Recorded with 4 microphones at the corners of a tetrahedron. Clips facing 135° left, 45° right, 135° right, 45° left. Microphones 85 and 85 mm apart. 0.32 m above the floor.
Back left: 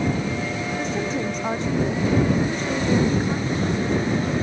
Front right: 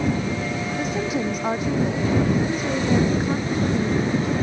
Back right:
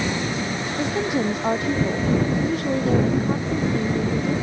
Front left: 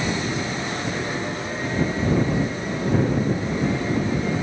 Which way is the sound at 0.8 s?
125° right.